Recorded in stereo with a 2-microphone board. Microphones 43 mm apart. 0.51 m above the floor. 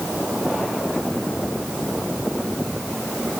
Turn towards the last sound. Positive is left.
No sound to turn to.